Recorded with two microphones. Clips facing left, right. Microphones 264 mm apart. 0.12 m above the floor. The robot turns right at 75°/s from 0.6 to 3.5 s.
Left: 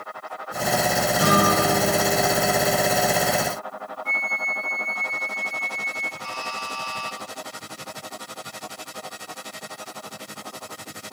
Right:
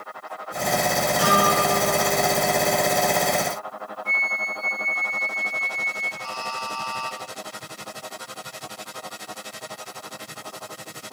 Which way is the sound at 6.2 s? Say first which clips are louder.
Right 3 dB; 45° right (ahead or behind).